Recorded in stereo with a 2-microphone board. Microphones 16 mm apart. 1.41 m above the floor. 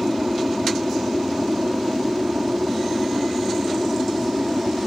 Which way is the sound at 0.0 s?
65° right (ahead or behind).